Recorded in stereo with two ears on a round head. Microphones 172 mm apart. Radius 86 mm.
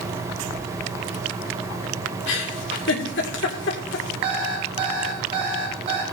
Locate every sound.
2.3 s a giggle: 65° left (ahead or behind), 1.9 m
4.2 s an alarm clock: 30° right (ahead or behind), 3.5 m